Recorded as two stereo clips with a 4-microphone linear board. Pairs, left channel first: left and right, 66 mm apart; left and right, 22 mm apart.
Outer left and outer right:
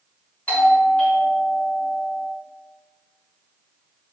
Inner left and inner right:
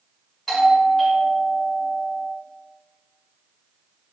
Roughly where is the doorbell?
Centre.